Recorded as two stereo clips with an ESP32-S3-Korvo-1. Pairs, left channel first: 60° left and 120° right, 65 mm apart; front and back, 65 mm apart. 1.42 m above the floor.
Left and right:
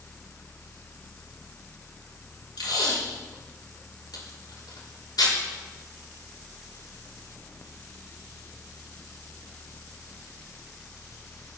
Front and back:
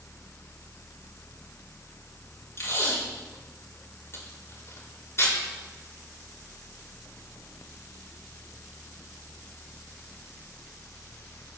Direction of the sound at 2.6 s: 50° left.